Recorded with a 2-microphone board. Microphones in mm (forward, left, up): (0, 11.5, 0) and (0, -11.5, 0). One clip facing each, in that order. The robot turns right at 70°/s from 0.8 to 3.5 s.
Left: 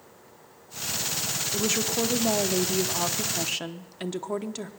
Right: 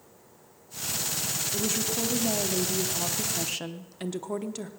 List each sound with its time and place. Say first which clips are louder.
1.5 s a woman speaking: left 4 dB; 30° left, 0.7 m; by 4.7 s 170° left, 0.7 m